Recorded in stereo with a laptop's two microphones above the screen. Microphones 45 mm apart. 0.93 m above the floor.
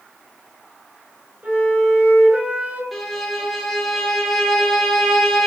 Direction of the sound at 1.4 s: 35° right (ahead or behind).